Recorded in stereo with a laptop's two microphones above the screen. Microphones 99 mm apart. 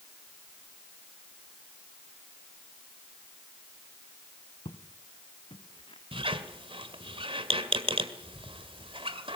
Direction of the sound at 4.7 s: 55° left (ahead or behind).